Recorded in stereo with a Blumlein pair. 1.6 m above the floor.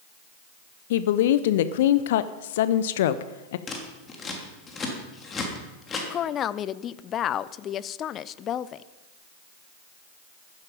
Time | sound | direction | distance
0.9 | a woman speaking | 55° left | 0.7 m
3.7 | scissors | 20° left | 3 m
6.1 | a woman speaking | 30° left | 0.6 m